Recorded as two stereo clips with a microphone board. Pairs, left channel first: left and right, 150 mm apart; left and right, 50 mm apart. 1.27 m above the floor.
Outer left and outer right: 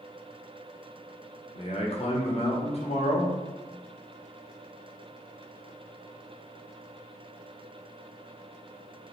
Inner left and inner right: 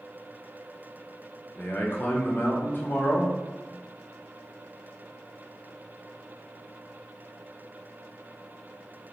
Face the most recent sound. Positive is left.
turn(degrees=45)  # may be behind; listen again after turning